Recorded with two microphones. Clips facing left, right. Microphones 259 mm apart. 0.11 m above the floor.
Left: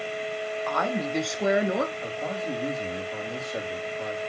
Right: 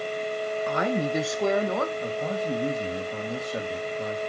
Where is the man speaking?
20° right (ahead or behind), 4 m.